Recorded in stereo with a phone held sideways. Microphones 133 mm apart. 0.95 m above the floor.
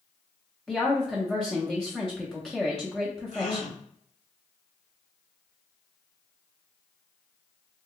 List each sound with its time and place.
0.7 s a woman speaking: 5° left (ahead or behind), 0.8 m
3.3 s a gasp: 75° left (ahead or behind), 1.2 m